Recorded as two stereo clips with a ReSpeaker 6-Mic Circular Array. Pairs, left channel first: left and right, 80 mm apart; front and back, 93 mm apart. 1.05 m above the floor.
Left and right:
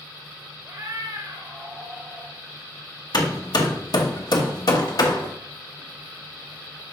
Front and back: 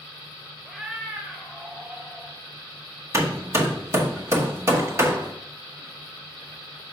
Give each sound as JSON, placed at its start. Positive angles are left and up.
{"t": 0.7, "sound": "a cat meowing", "azimuth_deg": -90, "distance_m": 0.9}
{"t": 3.1, "sound": "hammering", "azimuth_deg": 120, "distance_m": 1.0}